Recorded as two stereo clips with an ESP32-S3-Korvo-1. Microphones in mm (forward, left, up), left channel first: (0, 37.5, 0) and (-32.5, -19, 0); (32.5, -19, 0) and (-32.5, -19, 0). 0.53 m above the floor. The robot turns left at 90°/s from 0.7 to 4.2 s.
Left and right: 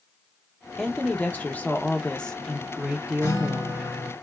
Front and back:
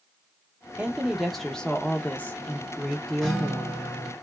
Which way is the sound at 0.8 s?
135° left.